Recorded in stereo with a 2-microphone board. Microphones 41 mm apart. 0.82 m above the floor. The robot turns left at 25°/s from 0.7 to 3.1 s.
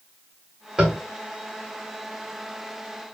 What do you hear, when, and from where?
0.8 s tapping: 15° right (ahead or behind), 1.3 m; by 1.0 s 20° right (ahead or behind), 1.3 m